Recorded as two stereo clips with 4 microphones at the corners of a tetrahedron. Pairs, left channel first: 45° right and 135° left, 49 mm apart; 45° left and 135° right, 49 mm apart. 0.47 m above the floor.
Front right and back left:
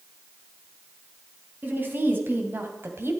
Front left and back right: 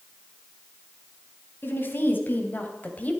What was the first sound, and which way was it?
A woman speaking, 85° left.